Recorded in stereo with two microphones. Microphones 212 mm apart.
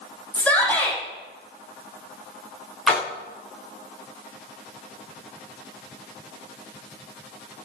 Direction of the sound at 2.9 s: Centre (ahead or behind).